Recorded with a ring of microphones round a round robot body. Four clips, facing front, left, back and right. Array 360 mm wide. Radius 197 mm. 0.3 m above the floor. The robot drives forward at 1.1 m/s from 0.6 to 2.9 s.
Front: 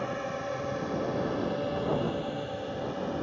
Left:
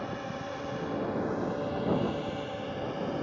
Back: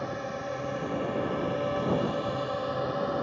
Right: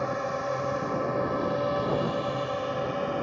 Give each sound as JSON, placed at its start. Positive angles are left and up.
{"t": 0.0, "sound": "a drone", "azimuth_deg": -85}